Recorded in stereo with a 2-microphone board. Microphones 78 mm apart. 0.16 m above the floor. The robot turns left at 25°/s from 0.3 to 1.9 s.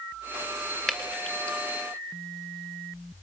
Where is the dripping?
5° left (ahead or behind), 3 m; by 1.6 s 20° left (ahead or behind), 3 m.